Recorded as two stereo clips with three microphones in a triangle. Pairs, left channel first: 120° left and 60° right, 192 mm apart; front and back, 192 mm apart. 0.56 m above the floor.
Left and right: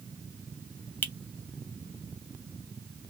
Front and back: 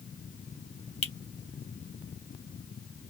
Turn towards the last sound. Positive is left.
turn(degrees=40)